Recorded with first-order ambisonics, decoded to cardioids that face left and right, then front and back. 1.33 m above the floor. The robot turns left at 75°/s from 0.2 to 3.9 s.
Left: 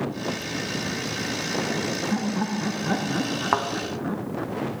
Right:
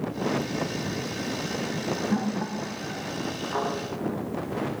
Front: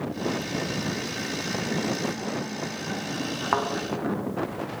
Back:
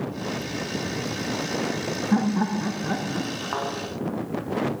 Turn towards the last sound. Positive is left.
turn(degrees=35)